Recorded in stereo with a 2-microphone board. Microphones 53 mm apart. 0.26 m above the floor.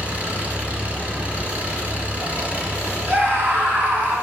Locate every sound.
0.0 s an engine running: 25° right (ahead or behind), 2 m
1.4 s whispering: 15° left (ahead or behind), 1.0 m
3.1 s a scream: 35° right (ahead or behind), 3.5 m